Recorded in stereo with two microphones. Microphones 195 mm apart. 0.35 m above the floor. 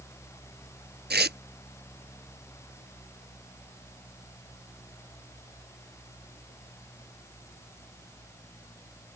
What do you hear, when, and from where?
1.1 s tearing paper: 60° right (ahead or behind)